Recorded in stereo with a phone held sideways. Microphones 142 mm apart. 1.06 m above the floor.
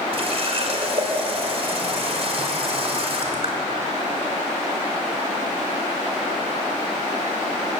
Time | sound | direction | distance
0.1 | a running tap | 45° right (ahead or behind) | 3 m